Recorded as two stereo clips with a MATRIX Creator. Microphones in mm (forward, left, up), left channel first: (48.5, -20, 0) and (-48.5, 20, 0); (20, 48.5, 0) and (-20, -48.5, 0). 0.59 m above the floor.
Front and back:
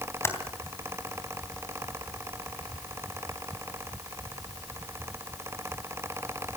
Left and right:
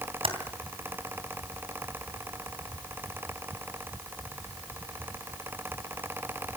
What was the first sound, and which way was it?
Typing on a keyboard, 85° right.